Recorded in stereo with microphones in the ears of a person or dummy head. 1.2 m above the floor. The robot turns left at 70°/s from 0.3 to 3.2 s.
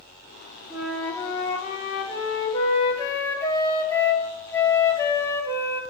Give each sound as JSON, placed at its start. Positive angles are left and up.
{"t": 0.7, "sound": "a flute", "azimuth_deg": -165, "distance_m": 1.8}